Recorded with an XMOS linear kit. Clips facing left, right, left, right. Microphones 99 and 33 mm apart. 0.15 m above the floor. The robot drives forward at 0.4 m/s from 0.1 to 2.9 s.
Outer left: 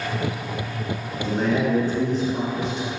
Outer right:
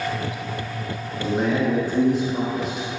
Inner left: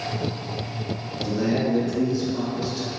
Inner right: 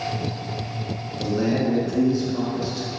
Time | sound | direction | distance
1.2 | a man speaking | 10° right (ahead or behind) | 1.1 m